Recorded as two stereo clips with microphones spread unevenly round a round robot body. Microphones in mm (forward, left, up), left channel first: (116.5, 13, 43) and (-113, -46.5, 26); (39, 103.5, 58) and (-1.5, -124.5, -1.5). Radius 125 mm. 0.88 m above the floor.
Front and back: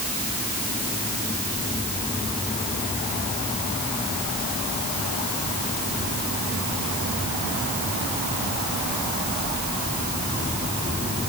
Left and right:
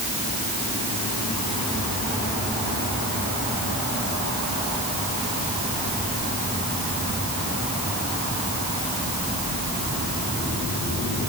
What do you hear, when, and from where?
Only background noise.